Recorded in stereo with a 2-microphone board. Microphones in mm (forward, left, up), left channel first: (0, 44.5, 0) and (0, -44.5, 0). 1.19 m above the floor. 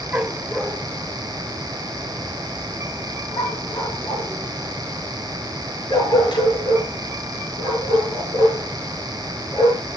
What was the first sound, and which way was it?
A dog barking, 15° right (ahead or behind).